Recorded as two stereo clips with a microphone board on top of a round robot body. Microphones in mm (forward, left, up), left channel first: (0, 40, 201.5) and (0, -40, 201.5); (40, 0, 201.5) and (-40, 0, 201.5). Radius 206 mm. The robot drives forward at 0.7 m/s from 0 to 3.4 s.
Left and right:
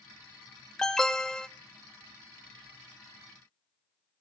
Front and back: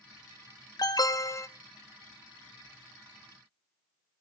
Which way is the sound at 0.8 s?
10° left.